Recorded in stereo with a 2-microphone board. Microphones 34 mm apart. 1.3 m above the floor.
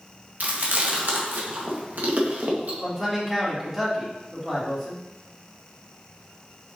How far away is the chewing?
About 1.7 m.